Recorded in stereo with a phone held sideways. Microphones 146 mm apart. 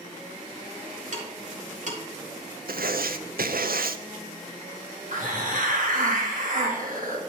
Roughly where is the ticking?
Right.